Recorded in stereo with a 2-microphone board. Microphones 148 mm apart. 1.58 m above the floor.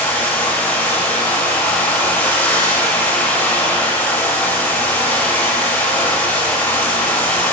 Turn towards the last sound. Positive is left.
turn(degrees=15)  # may be behind; listen again after turning